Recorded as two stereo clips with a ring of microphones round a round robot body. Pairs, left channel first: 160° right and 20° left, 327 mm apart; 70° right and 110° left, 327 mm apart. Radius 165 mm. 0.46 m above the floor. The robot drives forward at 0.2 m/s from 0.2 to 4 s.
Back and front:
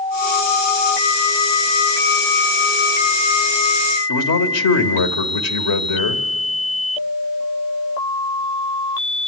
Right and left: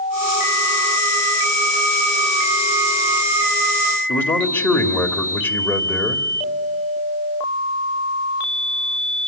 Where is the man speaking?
150° right, 1.9 m.